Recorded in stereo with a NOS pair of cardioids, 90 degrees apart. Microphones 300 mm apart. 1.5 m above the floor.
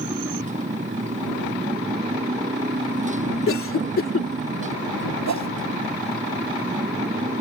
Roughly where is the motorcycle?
Ahead right.